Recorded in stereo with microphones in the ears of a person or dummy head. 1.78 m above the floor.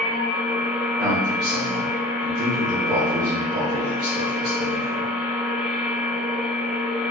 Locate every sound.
0.0 s a machine running: 5° right (ahead or behind), 1.2 m
1.0 s a man speaking: 45° right (ahead or behind), 1.3 m